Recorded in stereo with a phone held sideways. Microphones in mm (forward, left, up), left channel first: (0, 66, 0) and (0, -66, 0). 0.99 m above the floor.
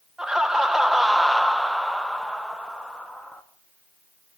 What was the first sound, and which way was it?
Laughter, 5° right (ahead or behind).